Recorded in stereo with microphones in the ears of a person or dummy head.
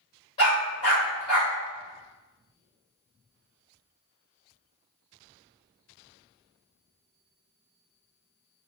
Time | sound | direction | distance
0.4 | a dog barking | 30° left (ahead or behind) | 1.9 m